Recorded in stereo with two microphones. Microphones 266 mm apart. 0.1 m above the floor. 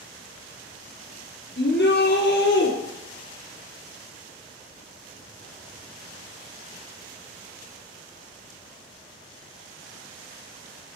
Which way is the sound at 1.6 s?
40° left (ahead or behind).